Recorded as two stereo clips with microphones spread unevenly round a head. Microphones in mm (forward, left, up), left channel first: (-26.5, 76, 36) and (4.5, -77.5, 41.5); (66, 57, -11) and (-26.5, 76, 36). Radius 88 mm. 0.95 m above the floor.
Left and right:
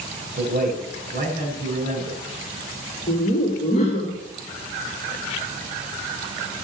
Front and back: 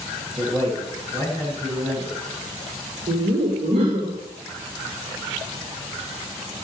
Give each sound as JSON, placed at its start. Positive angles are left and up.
{"t": 0.4, "sound": "a man speaking", "azimuth_deg": -115, "distance_m": 4.5}
{"t": 3.1, "sound": "laughter", "azimuth_deg": 145, "distance_m": 2.0}